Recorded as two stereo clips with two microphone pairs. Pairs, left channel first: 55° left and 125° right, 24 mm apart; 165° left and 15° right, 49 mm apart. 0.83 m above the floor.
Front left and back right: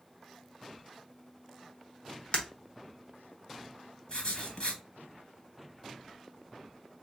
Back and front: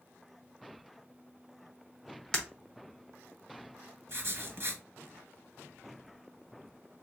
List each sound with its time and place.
2.3 s breaking glass: 85° left, 1.0 m
4.1 s writing: straight ahead, 1.1 m